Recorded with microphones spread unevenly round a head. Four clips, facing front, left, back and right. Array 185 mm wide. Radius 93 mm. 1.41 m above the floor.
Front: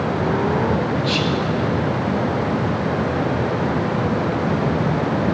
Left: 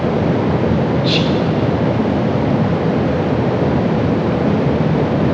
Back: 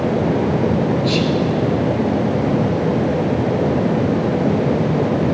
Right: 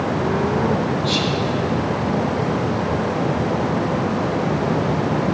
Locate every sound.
1.0 s whispering: 105° left, 0.9 m